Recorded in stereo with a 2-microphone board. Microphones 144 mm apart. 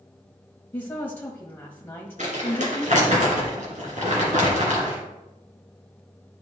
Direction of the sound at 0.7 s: 15° left (ahead or behind).